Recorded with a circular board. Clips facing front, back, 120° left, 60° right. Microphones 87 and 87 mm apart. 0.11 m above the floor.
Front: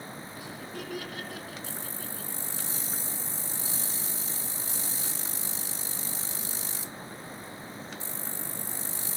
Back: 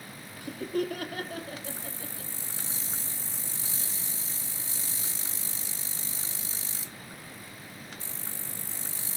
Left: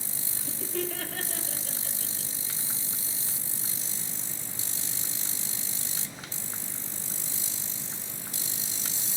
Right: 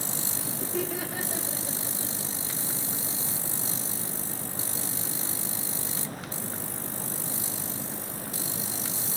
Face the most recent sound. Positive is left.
turn(degrees=-120)